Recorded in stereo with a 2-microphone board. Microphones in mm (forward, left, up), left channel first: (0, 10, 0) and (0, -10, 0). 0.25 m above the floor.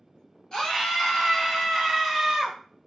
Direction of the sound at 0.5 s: 35° left (ahead or behind).